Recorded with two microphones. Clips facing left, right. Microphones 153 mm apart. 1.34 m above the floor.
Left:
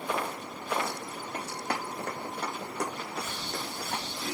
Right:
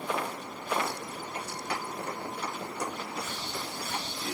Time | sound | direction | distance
1.3 | running footsteps | 55° left (ahead or behind) | 4.5 m